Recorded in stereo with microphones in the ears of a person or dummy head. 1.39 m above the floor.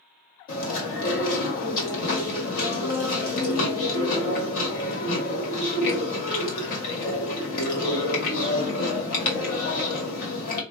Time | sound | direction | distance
0.5 | chewing | 55° left (ahead or behind) | 1.4 m